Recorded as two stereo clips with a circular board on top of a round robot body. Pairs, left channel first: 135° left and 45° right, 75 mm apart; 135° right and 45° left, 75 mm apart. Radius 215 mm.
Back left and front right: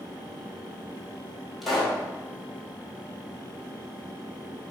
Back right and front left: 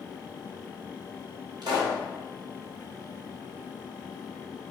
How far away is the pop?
About 4 m.